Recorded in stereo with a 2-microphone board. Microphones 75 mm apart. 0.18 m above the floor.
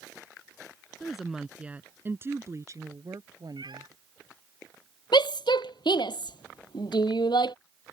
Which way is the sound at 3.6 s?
70° right (ahead or behind).